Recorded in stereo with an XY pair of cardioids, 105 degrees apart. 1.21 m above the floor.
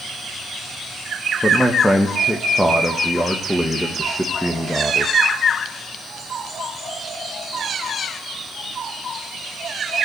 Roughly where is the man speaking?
Ahead.